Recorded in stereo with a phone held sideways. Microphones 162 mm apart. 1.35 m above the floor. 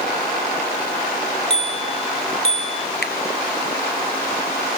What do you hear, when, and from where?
1.5 s a bicycle bell: 40° left (ahead or behind), 4 m
3.0 s a finger snap: 90° left, 0.9 m